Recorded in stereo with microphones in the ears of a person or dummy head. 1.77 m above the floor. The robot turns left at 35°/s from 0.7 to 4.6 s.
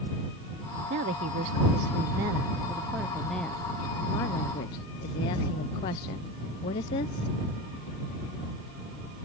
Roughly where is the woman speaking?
Right.